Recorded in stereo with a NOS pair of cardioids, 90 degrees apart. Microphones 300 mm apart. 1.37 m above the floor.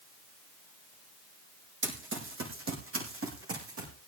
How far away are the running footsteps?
About 4.5 m.